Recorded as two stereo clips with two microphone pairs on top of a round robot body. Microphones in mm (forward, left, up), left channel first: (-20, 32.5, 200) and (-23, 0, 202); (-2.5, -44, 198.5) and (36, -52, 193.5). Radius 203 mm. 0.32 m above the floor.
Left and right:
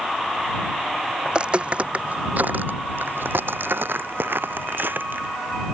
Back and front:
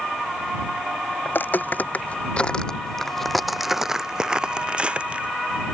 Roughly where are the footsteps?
Behind right.